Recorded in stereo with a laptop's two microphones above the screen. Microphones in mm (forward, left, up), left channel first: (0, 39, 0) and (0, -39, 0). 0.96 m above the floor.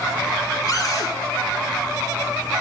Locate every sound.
0.7 s a cupboard door: 50° left (ahead or behind), 5.5 m